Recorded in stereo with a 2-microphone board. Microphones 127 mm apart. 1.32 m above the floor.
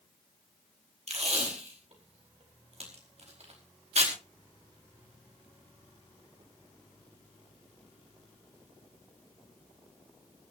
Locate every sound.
1.1 s tape being pulled: 60° right (ahead or behind), 4.5 m